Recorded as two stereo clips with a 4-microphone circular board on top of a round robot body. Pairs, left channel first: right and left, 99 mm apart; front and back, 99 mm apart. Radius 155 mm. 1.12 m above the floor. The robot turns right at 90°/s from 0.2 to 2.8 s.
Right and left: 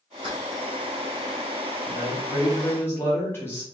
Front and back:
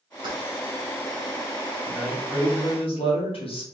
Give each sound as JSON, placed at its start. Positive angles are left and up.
{"t": 0.2, "sound": "keys jangling", "azimuth_deg": 130, "distance_m": 1.8}
{"t": 1.9, "sound": "a man speaking", "azimuth_deg": -110, "distance_m": 2.0}